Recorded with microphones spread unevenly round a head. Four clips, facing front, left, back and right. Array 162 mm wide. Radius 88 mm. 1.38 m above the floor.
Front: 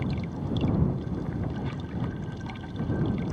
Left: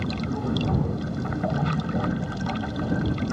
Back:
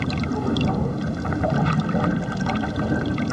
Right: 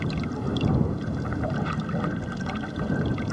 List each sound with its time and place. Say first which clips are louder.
0.0 s running water: left 1 dB, back 8 dB; 175° left